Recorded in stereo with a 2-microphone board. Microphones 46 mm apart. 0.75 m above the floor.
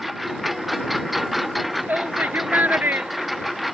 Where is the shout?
40° right (ahead or behind).